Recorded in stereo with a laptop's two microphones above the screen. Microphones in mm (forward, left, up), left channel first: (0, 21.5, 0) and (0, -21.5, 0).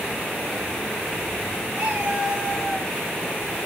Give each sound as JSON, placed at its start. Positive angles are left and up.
{"t": 1.7, "sound": "a cat meowing", "side_deg": -30, "distance_m": 5.0}